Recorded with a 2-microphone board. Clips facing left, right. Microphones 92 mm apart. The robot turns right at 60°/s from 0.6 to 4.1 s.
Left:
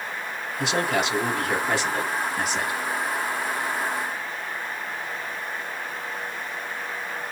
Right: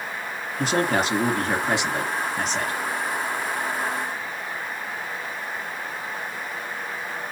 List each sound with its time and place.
0.6 s a man speaking: 100° right, 1.7 m; by 2.8 s 30° left, 1.7 m